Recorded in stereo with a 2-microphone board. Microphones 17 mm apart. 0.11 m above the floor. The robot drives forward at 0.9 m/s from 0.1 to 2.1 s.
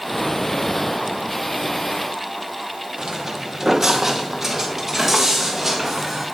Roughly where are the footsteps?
Right.